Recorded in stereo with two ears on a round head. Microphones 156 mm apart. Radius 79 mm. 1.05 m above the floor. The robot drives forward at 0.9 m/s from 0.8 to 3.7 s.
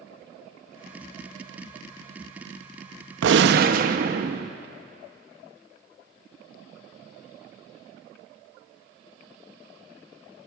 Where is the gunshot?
75° right (ahead or behind), 0.6 m; by 4.5 s 55° right (ahead or behind), 0.7 m.